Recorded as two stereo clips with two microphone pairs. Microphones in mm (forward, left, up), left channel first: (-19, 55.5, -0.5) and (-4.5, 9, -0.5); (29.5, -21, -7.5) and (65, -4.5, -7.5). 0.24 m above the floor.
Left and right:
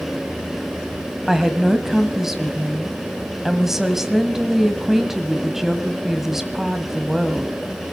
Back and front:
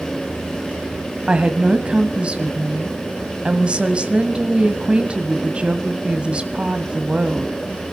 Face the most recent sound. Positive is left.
turn(degrees=5)